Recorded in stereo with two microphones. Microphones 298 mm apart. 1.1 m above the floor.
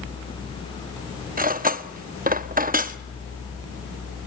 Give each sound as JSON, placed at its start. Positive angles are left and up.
{"t": 1.4, "sound": "cutlery clinking", "side_deg": -25, "distance_m": 0.8}